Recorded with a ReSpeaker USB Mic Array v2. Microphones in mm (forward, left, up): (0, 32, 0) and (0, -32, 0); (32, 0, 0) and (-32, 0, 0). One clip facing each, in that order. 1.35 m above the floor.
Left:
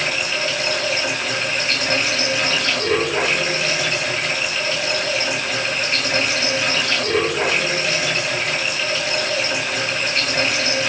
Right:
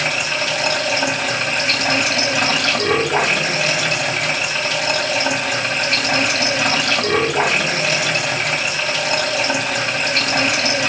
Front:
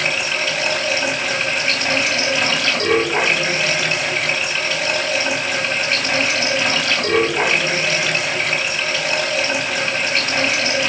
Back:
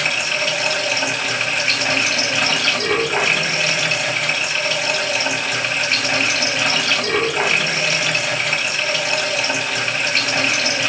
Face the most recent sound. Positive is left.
turn(degrees=-95)